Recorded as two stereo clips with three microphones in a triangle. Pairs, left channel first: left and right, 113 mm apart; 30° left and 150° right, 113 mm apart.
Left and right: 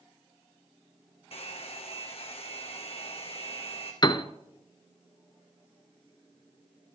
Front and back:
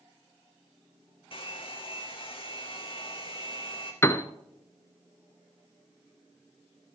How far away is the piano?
About 0.7 m.